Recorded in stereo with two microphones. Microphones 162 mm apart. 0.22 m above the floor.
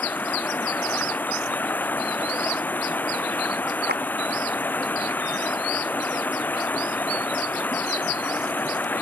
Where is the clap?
85° right.